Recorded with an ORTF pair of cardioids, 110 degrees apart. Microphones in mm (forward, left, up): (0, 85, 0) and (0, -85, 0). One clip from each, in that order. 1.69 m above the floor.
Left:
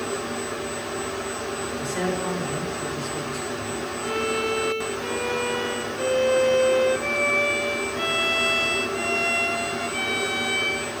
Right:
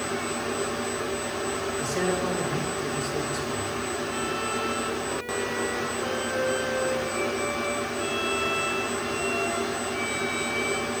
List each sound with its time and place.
1.8 s a man speaking: 5° right, 5 m
4.0 s a violin: 70° left, 1.5 m